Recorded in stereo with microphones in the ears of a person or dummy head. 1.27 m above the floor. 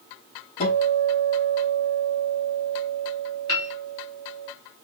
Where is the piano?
80° left, 3 m.